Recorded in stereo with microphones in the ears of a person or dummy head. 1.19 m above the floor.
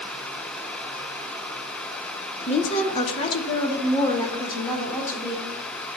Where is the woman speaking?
30° left (ahead or behind), 0.6 m; by 5.5 s 15° left (ahead or behind), 1.7 m.